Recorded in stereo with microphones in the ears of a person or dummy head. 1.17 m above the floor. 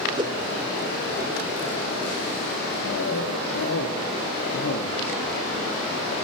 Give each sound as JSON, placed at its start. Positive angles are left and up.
{"t": 0.2, "sound": "a whoosh", "side_deg": -20, "distance_m": 0.7}
{"t": 2.9, "sound": "a cough", "side_deg": 70, "distance_m": 1.9}